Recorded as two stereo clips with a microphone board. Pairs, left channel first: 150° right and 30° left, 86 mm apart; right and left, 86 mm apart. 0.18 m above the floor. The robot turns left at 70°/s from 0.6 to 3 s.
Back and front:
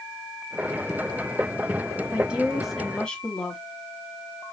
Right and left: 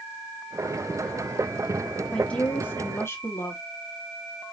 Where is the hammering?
I don't hear hammering.